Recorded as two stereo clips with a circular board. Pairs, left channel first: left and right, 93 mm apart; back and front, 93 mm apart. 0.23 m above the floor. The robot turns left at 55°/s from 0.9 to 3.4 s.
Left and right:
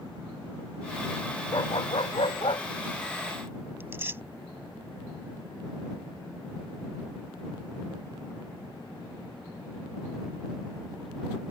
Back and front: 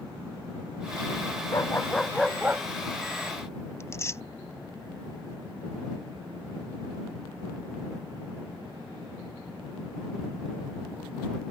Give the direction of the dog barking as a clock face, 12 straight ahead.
8 o'clock.